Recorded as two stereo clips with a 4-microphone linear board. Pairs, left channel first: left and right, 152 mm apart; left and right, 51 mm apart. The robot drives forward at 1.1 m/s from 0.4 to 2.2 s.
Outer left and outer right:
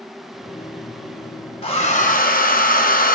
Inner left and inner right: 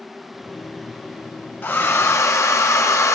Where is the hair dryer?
40° left (ahead or behind), 1.1 m; by 3.2 s 70° left (ahead or behind), 0.7 m.